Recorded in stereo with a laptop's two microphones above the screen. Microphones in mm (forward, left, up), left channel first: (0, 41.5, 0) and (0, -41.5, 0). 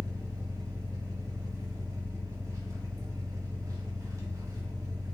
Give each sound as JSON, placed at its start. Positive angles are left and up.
{"t": 0.0, "sound": "an engine running", "side_deg": -45, "distance_m": 1.2}